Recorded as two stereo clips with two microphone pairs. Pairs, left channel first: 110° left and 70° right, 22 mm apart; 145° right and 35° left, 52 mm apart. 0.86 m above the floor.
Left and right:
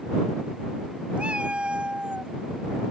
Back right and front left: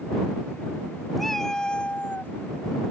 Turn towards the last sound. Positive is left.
turn(degrees=-95)